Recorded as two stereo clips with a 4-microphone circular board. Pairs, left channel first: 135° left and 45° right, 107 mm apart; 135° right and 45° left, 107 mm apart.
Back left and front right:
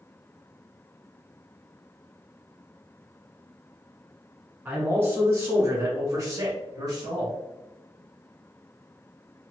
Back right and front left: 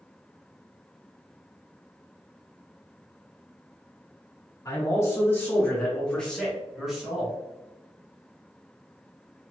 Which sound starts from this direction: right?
A man speaking, at 4.7 s.